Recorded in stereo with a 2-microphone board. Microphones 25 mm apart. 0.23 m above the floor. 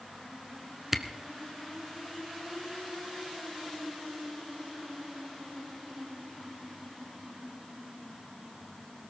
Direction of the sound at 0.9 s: 10° right (ahead or behind).